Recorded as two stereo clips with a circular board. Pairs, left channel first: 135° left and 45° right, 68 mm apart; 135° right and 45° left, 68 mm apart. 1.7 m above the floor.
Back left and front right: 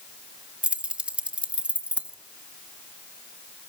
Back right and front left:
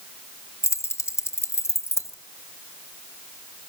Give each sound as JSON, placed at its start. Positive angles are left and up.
{"t": 0.6, "sound": "keys jangling", "azimuth_deg": -110, "distance_m": 1.2}